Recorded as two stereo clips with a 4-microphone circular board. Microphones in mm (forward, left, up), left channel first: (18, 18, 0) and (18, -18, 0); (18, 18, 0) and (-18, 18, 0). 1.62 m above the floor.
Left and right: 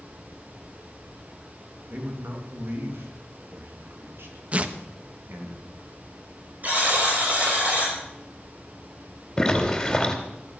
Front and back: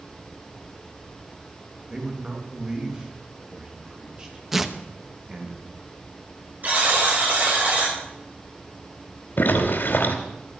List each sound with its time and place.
1.9 s a man speaking: 110° right, 3.5 m
4.5 s tearing paper: 105° right, 0.9 m
6.6 s a buzzer: 140° right, 6.5 m
9.4 s a zipper: 15° left, 2.5 m